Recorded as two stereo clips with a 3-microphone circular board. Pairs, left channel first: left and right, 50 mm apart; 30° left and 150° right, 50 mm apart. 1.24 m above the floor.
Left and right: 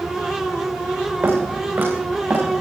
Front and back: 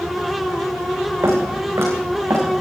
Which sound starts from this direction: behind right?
Footsteps, at 1.2 s.